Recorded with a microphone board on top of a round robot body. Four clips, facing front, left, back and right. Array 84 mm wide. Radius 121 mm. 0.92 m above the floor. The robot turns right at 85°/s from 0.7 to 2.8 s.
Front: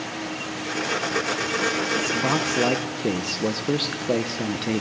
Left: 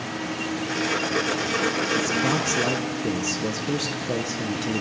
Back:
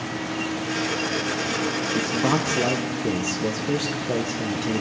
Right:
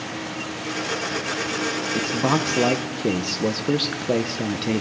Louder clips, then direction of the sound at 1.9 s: Right 2 dB, back 5 dB; 135° right.